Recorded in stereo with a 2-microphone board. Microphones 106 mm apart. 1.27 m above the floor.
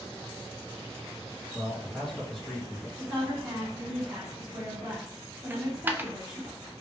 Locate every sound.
1.5 s a man speaking: 5° left (ahead or behind), 1.9 m
3.0 s a woman speaking: 10° right (ahead or behind), 2.5 m
5.5 s a dropped coin: 20° right (ahead or behind), 0.5 m